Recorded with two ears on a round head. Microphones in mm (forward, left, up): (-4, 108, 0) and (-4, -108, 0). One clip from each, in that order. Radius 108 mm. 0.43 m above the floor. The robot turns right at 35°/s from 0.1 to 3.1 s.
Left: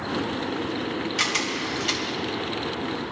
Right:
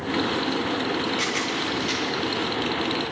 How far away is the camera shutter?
About 3 m.